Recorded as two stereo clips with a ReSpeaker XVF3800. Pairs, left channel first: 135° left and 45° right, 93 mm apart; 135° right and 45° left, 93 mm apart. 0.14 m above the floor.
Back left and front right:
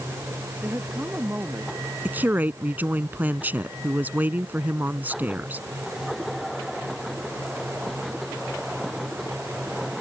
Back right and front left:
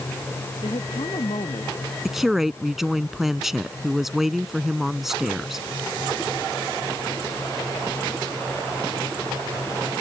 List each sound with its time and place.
0.6 s a woman speaking: 120° right
2.0 s a woman speaking: 35° right